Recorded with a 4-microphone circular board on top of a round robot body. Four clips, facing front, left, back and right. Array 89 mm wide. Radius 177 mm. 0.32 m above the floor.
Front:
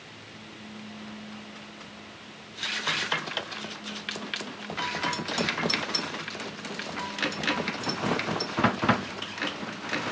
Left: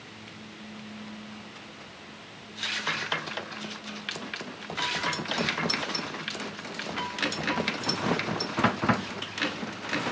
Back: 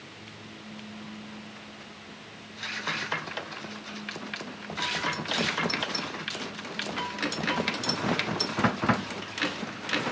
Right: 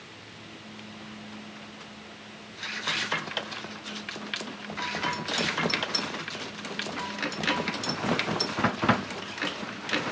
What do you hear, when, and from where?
Only background noise.